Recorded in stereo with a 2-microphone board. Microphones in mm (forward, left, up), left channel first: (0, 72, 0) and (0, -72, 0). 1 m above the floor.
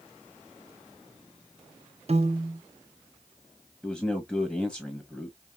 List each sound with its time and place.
2.1 s a piano: 45° right (ahead or behind), 0.6 m
3.8 s a man speaking: 5° right (ahead or behind), 1.4 m